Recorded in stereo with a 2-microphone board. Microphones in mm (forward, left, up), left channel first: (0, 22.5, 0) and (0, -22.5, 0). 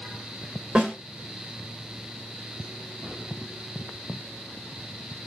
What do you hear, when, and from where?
0.8 s a snare drum: 30° right (ahead or behind), 2 m